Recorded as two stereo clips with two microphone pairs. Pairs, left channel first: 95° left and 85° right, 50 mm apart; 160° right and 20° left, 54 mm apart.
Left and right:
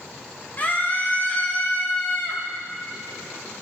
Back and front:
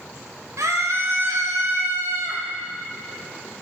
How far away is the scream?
About 2 m.